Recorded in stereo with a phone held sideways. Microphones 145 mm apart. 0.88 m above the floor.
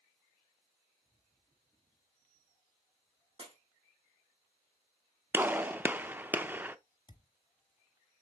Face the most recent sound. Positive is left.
turn(degrees=30)  # may be behind; listen again after turning